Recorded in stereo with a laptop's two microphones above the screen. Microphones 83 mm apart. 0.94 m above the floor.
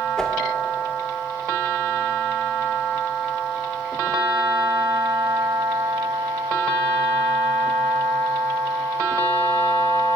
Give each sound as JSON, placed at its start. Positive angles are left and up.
{"t": 0.2, "sound": "a whoosh", "side_deg": 10, "distance_m": 0.6}